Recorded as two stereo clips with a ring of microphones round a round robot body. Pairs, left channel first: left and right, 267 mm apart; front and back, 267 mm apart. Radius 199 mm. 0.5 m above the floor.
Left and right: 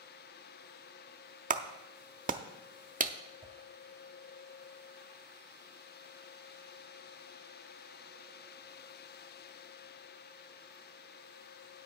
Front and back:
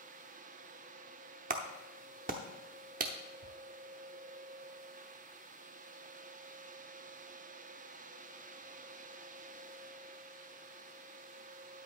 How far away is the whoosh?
About 4.5 m.